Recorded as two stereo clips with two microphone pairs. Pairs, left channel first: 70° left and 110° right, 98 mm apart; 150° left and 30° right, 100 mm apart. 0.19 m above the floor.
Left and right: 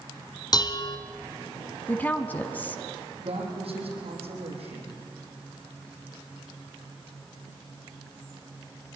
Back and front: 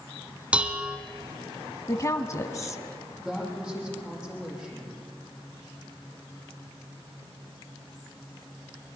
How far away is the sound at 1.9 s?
About 1.2 m.